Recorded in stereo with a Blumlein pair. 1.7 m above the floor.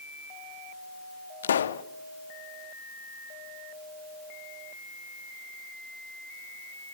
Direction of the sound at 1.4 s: 65° left.